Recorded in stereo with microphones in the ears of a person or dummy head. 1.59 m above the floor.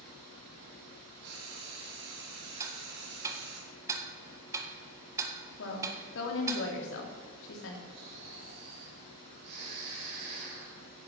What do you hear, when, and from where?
1.2 s frying: 55° right (ahead or behind), 4.5 m
2.6 s ticking: 15° right (ahead or behind), 1.6 m
5.6 s a woman speaking: 70° left (ahead or behind), 3 m
7.9 s snoring: 65° right (ahead or behind), 5.5 m